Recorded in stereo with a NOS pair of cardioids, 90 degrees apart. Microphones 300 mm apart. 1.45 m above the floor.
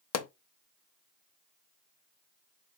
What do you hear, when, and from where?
0.1 s a pop: 55° left, 0.7 m